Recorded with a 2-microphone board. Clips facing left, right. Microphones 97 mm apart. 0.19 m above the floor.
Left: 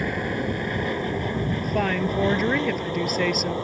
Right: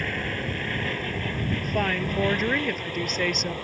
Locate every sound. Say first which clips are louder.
0.0 s an aircraft: left 4 dB; 15° left (ahead or behind); by 3.6 s 20° left (ahead or behind)
1.6 s a woman speaking: left 3 dB; 5° left (ahead or behind)